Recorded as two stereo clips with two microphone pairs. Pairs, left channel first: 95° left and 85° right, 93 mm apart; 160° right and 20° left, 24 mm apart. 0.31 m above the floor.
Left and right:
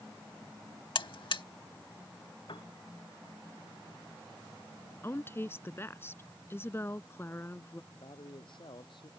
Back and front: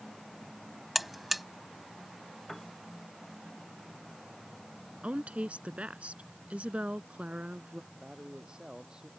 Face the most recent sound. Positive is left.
turn(degrees=75)